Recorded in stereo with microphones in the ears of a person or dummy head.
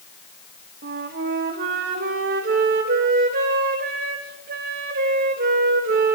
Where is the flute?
50° right (ahead or behind), 3 m.